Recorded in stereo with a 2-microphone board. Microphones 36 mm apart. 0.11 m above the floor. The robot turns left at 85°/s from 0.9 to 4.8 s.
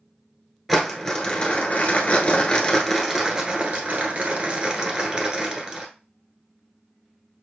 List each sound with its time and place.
0.7 s crumpling: 175° left, 1.2 m; by 5.9 s 160° right, 1.2 m